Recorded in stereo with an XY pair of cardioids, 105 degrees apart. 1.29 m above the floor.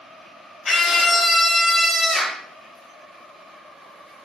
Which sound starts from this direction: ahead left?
A scream, at 0.7 s.